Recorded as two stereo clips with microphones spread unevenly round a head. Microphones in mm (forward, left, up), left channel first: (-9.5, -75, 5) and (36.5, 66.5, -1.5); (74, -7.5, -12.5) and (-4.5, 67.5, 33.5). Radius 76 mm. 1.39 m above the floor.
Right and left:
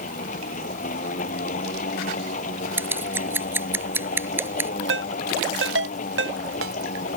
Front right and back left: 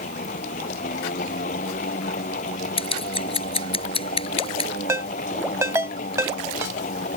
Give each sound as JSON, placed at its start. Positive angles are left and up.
{"t": 0.0, "sound": "a machine running", "azimuth_deg": -70}
{"t": 2.8, "sound": "scissors", "azimuth_deg": -5}
{"t": 4.9, "sound": "a ringtone", "azimuth_deg": 75}